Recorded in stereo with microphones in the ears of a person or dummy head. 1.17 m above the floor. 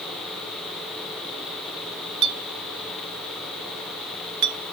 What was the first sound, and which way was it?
A clink, 90° right.